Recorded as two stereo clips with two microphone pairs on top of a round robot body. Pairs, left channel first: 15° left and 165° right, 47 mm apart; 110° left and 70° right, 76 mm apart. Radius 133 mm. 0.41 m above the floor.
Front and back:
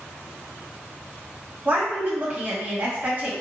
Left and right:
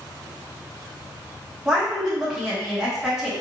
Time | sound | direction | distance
1.6 | a woman speaking | 150° right | 1.6 m